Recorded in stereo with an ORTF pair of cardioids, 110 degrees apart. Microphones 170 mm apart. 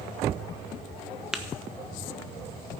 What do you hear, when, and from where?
1.3 s tapping: 5° right, 1.1 m